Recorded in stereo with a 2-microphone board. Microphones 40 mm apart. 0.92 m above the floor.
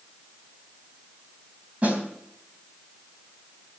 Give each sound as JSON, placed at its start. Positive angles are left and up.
{"t": 1.8, "sound": "a snare drum", "side_deg": -35, "distance_m": 3.5}